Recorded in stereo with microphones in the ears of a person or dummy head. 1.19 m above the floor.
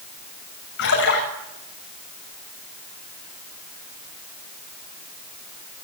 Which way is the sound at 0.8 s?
60° left (ahead or behind).